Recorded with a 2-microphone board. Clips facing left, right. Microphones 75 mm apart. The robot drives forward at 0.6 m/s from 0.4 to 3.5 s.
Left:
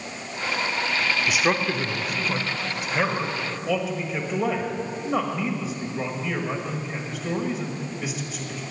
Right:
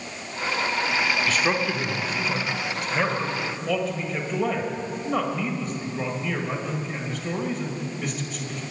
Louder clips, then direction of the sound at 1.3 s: Left 1 dB; 10° left (ahead or behind).